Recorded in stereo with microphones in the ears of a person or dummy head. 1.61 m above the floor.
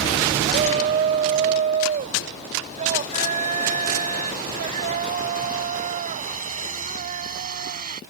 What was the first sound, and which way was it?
A shout, 35° right (ahead or behind).